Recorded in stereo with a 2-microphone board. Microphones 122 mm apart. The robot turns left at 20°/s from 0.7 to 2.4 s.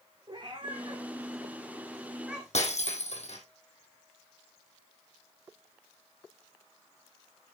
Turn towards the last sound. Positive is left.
turn(degrees=70)  # may be behind; listen again after turning